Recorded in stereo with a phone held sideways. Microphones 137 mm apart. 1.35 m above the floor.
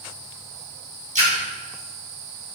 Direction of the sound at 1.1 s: 60° right (ahead or behind).